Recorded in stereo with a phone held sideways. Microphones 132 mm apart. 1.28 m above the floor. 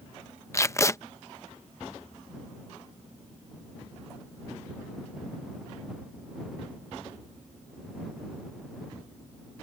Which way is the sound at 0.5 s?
20° left (ahead or behind).